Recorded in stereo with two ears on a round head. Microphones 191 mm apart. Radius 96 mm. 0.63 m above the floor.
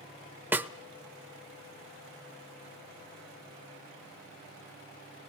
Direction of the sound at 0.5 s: 10° right (ahead or behind).